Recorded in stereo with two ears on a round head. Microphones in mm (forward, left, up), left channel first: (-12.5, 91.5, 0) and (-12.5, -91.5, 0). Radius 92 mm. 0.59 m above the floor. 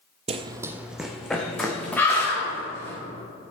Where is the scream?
10° left (ahead or behind), 3.5 m.